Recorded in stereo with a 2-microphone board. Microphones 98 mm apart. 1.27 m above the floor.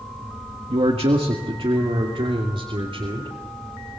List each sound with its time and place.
0.7 s a man speaking: 70° right (ahead or behind), 1.6 m; by 3.4 s 65° right (ahead or behind), 3.5 m